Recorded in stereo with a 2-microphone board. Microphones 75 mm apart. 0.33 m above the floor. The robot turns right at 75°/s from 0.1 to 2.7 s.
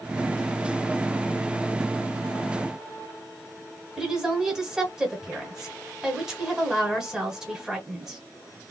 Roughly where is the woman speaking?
Centre.